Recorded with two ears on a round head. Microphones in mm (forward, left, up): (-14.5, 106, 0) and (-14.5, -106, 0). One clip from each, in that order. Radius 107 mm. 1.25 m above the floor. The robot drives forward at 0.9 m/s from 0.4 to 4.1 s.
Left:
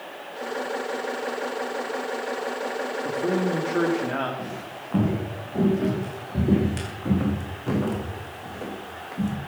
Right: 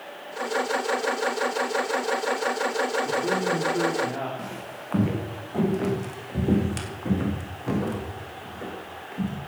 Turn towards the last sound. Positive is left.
turn(degrees=25)  # may be behind; listen again after turning